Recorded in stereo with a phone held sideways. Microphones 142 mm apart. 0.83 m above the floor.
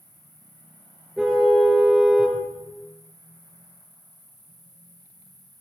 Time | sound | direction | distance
0.0 | an insect | 15° right (ahead or behind) | 9.5 m
1.2 | a car horn | 5° right (ahead or behind) | 6.5 m